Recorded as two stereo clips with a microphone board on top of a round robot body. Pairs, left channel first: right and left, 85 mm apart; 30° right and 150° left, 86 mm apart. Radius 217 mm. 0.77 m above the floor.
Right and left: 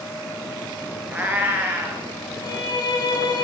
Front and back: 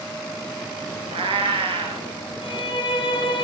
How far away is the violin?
About 7 m.